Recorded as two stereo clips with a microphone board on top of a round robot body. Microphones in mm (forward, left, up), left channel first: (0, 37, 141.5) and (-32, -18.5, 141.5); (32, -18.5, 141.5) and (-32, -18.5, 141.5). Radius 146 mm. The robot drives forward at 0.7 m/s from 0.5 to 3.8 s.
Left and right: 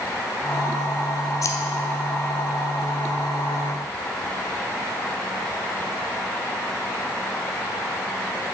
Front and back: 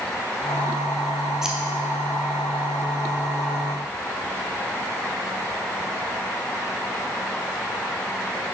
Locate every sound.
1.4 s scissors: 95° left, 0.5 m; by 1.6 s 105° left, 0.6 m